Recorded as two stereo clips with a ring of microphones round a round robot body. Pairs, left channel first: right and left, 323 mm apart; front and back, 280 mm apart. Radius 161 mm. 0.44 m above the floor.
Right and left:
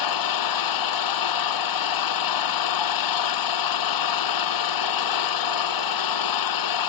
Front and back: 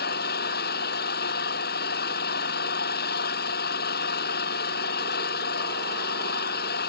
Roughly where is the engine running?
Ahead right.